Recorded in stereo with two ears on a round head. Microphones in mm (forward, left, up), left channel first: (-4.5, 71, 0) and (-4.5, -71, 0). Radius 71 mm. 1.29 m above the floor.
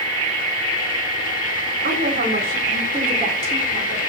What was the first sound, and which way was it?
A woman speaking, 60° right (ahead or behind).